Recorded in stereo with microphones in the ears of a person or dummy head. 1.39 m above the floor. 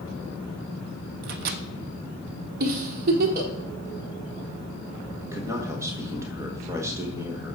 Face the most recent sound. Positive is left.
turn(degrees=-10)  # may be behind; listen again after turning